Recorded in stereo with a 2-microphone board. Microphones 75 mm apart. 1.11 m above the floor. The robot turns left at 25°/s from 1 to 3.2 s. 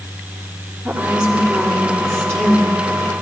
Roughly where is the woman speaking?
Behind.